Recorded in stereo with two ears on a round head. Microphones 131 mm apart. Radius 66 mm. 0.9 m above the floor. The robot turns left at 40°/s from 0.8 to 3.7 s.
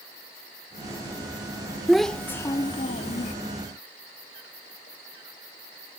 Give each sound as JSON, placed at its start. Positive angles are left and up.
{"t": 1.9, "sound": "a child speaking", "azimuth_deg": -175}